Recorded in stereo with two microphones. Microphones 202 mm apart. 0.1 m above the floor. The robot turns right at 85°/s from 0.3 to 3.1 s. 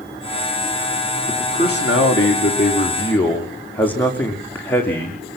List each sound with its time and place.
1.3 s a man speaking: 15° left, 6.5 m; by 5.4 s 170° left, 6.5 m